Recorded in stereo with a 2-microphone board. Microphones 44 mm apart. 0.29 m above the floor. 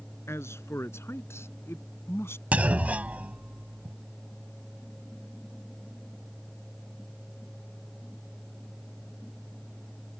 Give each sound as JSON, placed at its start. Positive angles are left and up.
{"t": 0.3, "sound": "a man speaking", "side_deg": 70}
{"t": 2.5, "sound": "a clunk", "side_deg": -30}